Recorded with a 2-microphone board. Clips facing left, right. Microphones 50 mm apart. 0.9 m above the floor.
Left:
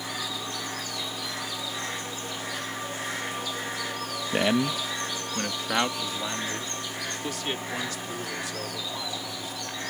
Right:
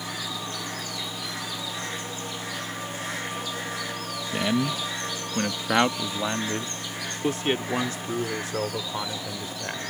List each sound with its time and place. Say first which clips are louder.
4.3 s a man speaking: left 1 dB; 30° left (ahead or behind); by 9.8 s 35° right (ahead or behind)